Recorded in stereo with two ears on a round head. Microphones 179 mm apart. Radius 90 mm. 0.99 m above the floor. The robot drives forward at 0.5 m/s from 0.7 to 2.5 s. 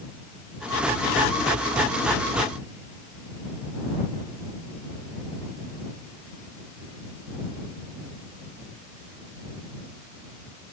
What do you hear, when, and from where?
Only background noise.